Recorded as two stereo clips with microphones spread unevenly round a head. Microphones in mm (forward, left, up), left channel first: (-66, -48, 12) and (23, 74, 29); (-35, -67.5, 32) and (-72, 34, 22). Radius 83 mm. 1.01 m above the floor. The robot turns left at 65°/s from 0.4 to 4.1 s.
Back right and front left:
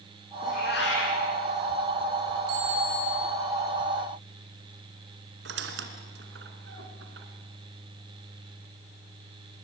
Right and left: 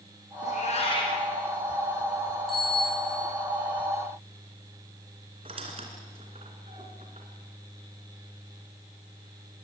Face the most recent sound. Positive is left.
turn(degrees=50)